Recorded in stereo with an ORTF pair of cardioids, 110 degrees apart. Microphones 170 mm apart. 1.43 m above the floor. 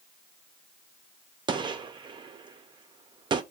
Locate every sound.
1.5 s a gunshot: 25° right, 0.5 m